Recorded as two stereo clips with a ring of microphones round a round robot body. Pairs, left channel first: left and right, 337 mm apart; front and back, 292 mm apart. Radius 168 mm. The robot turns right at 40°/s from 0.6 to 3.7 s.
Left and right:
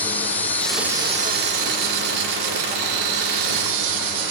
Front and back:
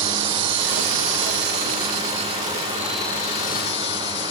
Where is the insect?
175° left, 1.4 m; by 4.3 s 60° right, 1.4 m.